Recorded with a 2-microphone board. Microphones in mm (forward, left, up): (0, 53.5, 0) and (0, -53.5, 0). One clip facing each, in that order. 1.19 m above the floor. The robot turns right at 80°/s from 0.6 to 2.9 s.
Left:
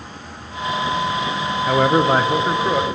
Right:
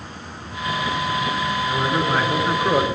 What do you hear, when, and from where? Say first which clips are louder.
1.7 s a man speaking: left 9 dB; 100° left, 0.6 m; by 2.9 s 165° right, 0.6 m